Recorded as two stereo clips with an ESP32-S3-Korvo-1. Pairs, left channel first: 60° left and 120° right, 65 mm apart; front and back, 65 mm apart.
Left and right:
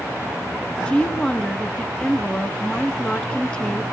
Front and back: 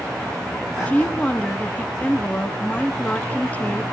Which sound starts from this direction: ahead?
A woman speaking, at 0.9 s.